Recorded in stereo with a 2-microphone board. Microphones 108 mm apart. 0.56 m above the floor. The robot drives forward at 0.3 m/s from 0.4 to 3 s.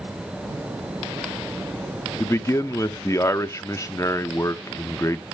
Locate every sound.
2.2 s a man speaking: 25° left (ahead or behind), 0.7 m; by 5.2 s 30° left (ahead or behind), 0.6 m